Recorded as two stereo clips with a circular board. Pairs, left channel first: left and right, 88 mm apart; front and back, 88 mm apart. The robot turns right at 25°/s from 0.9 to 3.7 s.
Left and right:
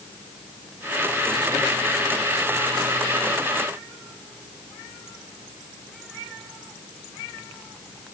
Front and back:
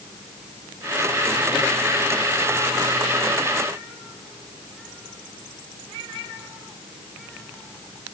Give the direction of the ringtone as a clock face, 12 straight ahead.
No ringtone in this recording.